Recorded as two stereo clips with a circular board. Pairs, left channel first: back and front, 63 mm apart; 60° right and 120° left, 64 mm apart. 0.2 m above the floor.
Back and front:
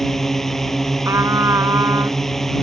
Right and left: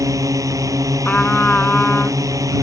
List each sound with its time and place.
0.0 s a drone: 95° left
1.1 s a trumpet: straight ahead